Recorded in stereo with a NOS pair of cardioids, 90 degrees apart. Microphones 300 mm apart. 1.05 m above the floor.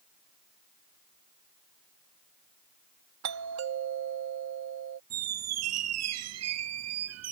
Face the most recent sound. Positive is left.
turn(degrees=-60)